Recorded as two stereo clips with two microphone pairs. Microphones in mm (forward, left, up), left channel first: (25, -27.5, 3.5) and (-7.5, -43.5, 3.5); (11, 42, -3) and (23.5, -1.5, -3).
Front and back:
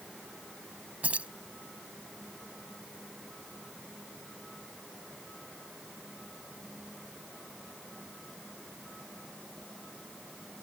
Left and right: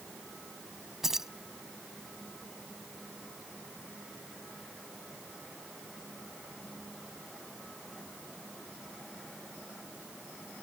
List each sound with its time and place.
1.0 s keys jangling: 150° right